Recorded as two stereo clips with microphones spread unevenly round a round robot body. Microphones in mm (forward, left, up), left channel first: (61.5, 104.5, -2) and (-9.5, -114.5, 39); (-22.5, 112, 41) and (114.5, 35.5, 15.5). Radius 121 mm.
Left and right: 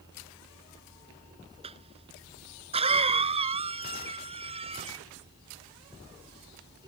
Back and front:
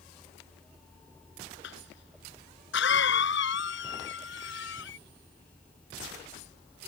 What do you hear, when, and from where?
1.6 s a cough: 175° right